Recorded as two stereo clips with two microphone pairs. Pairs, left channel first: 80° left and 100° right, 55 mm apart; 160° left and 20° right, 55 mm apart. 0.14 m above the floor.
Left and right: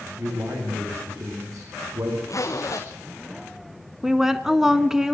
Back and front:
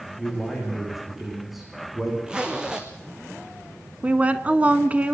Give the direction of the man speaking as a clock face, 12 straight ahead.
3 o'clock.